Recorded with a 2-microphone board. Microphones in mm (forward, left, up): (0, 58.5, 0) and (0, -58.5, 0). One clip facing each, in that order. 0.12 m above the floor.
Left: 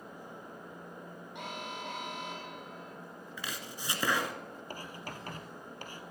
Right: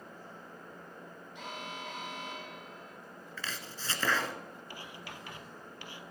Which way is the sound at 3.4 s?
15° left (ahead or behind).